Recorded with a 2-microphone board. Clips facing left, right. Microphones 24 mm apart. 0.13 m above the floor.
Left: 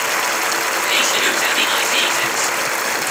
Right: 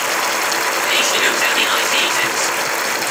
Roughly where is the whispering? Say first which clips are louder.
Right 1 dB; right.